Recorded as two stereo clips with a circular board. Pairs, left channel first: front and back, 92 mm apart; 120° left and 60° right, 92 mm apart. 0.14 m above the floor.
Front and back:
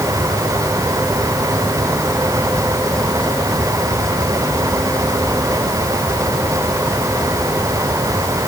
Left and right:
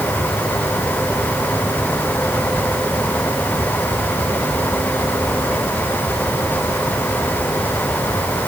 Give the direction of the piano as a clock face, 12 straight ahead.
I don't hear a piano.